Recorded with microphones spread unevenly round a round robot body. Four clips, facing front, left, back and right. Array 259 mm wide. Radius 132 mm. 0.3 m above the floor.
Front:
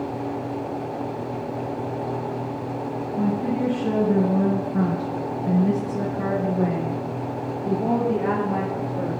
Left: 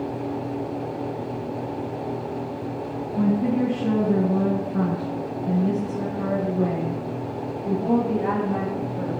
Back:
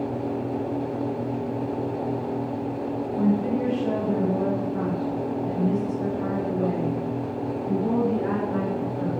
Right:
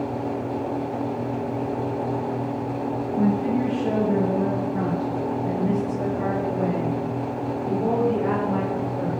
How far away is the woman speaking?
About 4.5 m.